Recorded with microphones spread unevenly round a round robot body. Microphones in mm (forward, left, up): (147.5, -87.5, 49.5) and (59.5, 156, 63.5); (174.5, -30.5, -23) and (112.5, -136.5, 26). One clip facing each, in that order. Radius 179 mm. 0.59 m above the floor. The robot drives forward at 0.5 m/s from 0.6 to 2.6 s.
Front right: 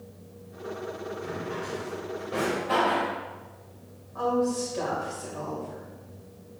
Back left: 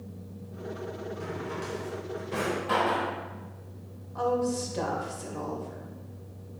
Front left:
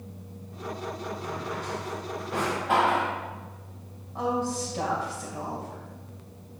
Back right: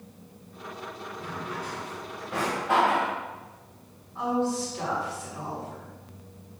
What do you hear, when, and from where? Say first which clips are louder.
1.2 s a drawer: front right 2 dB, front left 2 dB; 135° left, 1.1 m; by 3.1 s 150° left, 1.7 m
4.2 s a woman speaking: front right 2 dB, back right 1 dB; 75° left, 2.5 m